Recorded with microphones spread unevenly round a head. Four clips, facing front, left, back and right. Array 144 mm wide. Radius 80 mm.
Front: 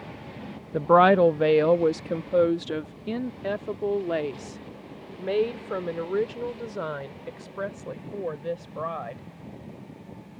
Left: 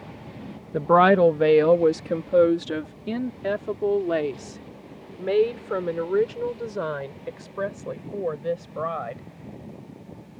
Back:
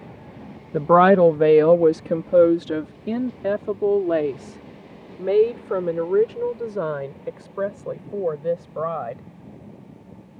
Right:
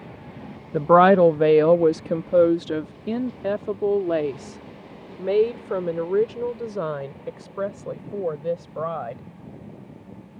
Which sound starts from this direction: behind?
A woman speaking, at 0.7 s.